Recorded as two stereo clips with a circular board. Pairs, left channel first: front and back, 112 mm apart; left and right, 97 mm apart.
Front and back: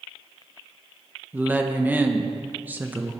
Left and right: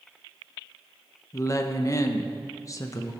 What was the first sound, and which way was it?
A woman speaking, 115° left.